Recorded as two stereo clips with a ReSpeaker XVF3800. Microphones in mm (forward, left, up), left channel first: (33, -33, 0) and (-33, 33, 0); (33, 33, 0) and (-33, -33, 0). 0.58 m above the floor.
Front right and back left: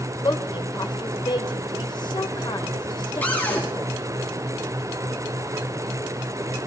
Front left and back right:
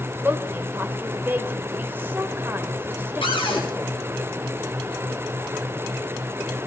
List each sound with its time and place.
0.2 s a woman speaking: 70° right, 2 m
3.2 s a cupboard door: 25° left, 4 m